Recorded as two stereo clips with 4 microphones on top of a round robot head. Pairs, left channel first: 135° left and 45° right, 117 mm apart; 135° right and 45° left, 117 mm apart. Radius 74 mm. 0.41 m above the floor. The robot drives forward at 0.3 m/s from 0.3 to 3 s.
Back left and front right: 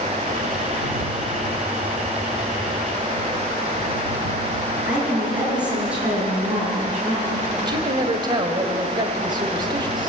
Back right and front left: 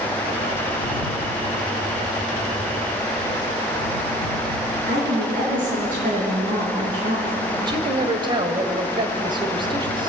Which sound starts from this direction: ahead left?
A woman speaking, at 4.9 s.